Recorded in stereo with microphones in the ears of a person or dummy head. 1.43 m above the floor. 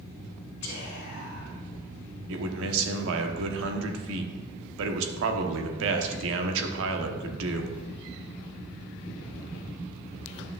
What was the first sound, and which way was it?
Whispering, 75° left (ahead or behind).